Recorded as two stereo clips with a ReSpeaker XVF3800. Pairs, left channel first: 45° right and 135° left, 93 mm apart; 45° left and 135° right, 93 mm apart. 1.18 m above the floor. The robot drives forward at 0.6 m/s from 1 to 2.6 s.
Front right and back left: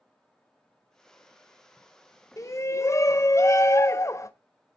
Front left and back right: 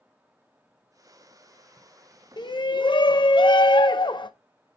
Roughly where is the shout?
Ahead.